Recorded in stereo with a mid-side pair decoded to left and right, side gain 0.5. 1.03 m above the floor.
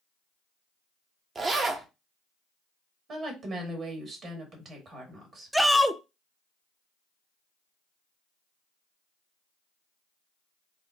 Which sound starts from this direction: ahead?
A shout, at 5.5 s.